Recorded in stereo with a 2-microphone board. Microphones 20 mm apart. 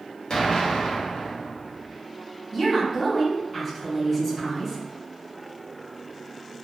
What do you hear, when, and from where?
0.3 s an explosion: 45° left (ahead or behind), 0.6 m
2.5 s a woman speaking: centre (ahead or behind), 1.7 m